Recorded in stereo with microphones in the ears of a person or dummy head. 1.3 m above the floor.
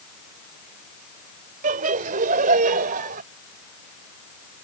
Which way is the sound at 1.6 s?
45° right (ahead or behind).